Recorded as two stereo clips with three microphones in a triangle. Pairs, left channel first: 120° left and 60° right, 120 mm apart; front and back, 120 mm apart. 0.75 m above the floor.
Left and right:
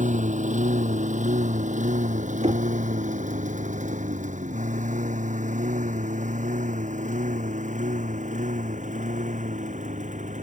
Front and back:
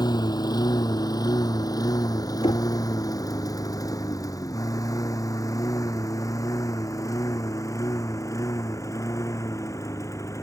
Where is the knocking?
40° right.